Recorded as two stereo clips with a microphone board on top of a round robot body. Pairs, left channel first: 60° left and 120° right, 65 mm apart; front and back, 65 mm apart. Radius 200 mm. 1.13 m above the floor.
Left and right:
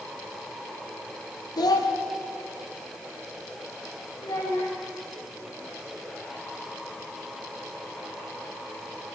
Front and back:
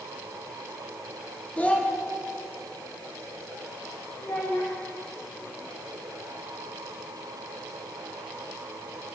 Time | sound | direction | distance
1.6 | a child speaking | 70° left | 1.9 m
4.2 | a child speaking | 45° left | 7.5 m